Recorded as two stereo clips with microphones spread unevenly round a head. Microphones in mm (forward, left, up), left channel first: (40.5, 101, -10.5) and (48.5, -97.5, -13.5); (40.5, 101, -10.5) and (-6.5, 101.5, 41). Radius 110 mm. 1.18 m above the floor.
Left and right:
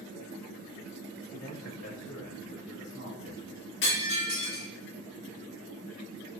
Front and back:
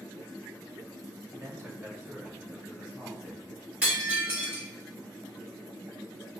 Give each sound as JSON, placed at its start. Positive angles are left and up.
{"t": 1.3, "sound": "a man speaking", "azimuth_deg": 120, "distance_m": 1.7}
{"t": 3.8, "sound": "breaking glass", "azimuth_deg": 130, "distance_m": 2.0}